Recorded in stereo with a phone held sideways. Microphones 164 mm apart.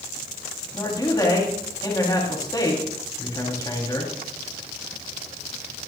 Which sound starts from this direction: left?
A man speaking, at 0.7 s.